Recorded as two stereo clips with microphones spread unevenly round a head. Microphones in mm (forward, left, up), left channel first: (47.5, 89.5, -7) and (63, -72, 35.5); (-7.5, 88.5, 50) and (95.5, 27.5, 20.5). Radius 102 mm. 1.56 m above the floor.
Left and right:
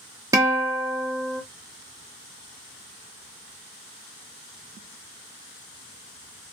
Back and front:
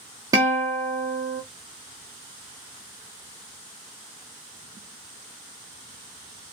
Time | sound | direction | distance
0.3 | a guitar | 105° right | 0.6 m